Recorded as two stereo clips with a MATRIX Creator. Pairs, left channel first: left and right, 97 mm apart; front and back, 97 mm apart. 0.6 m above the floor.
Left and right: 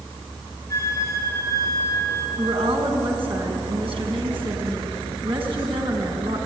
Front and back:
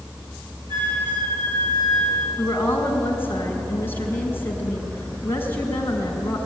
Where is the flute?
150° left, 3 m.